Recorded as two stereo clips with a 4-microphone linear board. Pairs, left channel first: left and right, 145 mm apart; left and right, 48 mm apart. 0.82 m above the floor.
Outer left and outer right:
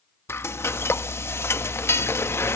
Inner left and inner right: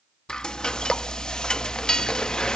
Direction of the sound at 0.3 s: 15° left (ahead or behind).